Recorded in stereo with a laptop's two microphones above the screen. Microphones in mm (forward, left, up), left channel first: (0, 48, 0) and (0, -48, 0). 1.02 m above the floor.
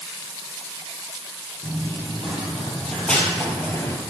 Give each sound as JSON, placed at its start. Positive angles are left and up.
{"t": 1.6, "sound": "running footsteps", "side_deg": -5, "distance_m": 2.5}